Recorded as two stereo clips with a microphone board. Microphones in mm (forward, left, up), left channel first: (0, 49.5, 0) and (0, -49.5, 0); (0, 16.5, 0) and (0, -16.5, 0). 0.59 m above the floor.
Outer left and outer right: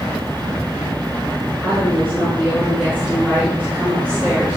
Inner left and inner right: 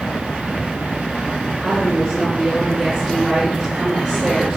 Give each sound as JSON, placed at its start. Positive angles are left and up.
{"t": 1.6, "sound": "a woman speaking", "side_deg": -20, "distance_m": 6.5}